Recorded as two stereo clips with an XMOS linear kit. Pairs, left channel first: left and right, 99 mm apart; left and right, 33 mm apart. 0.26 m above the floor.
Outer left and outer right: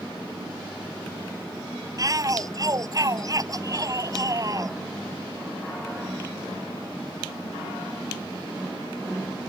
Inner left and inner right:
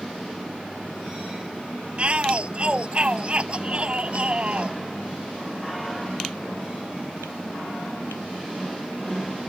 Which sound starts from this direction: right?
A shout, at 2.0 s.